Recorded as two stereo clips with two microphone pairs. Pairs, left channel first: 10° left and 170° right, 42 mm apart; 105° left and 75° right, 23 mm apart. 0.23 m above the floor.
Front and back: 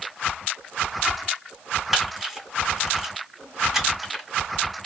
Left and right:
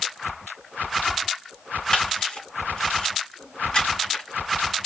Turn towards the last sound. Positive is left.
turn(degrees=110)